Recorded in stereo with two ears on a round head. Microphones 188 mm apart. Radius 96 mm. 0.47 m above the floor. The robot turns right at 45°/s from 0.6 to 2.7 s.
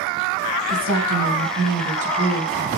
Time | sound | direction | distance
0.7 | a woman speaking | 95° right | 4.5 m